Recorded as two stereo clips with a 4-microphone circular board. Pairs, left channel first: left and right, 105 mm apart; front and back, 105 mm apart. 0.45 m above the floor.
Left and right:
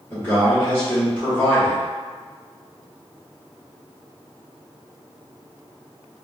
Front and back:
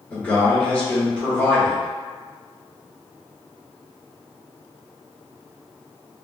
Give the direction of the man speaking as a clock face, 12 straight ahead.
11 o'clock.